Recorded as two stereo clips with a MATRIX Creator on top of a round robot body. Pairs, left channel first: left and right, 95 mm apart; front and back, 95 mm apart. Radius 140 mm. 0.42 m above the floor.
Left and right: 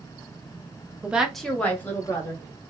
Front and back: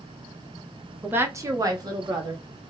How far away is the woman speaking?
About 0.8 m.